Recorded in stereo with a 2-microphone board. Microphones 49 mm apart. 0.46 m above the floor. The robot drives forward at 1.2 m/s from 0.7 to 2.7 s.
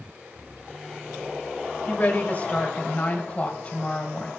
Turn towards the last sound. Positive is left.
turn(degrees=30)  # may be behind; listen again after turning